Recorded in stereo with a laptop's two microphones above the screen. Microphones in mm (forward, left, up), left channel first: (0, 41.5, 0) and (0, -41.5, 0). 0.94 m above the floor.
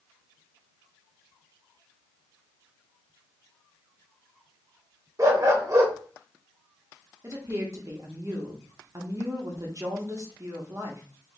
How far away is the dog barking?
About 0.8 m.